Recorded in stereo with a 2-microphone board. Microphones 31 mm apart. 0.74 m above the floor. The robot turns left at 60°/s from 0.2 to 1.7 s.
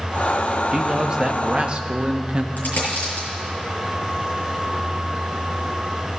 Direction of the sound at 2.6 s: 70° left (ahead or behind).